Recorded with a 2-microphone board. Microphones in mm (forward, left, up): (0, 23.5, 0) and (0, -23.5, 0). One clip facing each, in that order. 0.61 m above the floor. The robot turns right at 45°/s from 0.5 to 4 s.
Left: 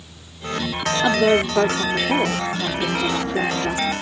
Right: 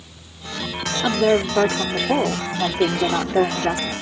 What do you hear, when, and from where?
1.0 s a woman speaking: 175° left; by 3.9 s 55° right